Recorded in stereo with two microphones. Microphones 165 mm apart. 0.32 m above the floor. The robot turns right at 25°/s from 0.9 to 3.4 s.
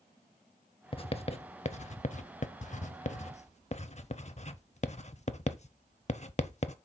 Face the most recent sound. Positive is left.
turn(degrees=45)  # may be behind; listen again after turning